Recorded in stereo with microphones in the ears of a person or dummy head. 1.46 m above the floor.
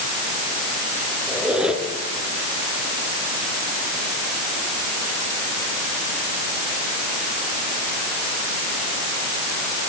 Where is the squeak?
Centre (ahead or behind), 3.5 m.